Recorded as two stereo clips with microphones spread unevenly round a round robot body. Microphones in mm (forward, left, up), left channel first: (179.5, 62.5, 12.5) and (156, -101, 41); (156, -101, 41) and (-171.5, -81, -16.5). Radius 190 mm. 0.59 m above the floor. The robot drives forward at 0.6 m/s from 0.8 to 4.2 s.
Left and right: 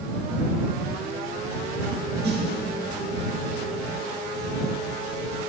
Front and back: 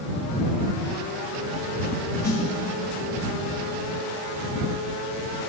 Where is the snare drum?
85° right, 1.6 m; by 2.5 s 90° right, 1.6 m.